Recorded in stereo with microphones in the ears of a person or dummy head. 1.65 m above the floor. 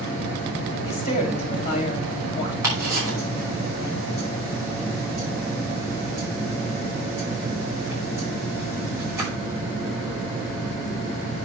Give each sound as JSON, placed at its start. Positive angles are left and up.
{"t": 0.8, "sound": "a woman speaking", "side_deg": 35, "distance_m": 5.0}
{"t": 2.6, "sound": "ticking", "side_deg": -15, "distance_m": 5.5}